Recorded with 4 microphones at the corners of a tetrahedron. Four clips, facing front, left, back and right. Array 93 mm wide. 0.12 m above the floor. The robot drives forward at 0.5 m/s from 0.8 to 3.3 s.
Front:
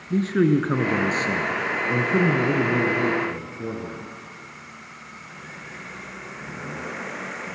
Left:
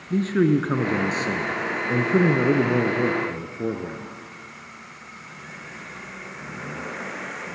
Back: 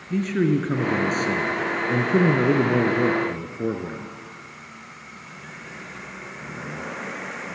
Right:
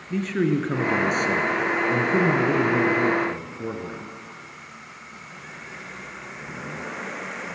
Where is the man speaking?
35° left, 1.5 m; by 4.1 s 155° left, 1.6 m.